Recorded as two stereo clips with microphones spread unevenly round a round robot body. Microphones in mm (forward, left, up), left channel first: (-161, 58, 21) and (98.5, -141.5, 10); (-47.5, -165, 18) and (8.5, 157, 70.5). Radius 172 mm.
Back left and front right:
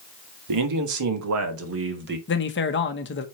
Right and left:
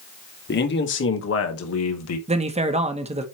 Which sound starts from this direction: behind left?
A man speaking, at 2.3 s.